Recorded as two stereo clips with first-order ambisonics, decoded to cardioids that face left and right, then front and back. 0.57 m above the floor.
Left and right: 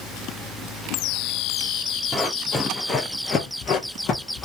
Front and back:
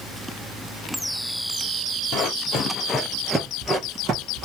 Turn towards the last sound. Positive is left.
turn(degrees=140)